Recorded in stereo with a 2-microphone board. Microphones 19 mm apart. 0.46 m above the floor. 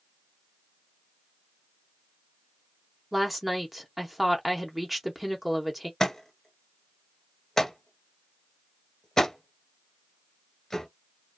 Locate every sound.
3.1 s a woman speaking: 15° right (ahead or behind), 0.8 m
6.0 s a thud: 30° left (ahead or behind), 1.3 m